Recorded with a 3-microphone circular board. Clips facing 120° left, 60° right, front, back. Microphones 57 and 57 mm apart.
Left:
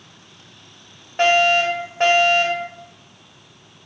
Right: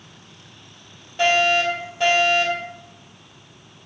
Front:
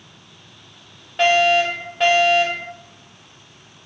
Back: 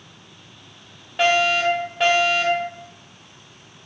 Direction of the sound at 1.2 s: 90° left.